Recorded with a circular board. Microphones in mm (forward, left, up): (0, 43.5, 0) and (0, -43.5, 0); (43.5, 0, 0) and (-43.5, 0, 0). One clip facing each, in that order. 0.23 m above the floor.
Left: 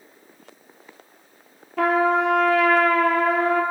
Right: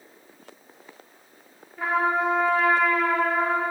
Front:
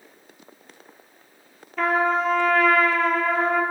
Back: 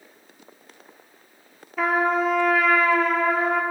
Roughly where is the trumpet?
Left.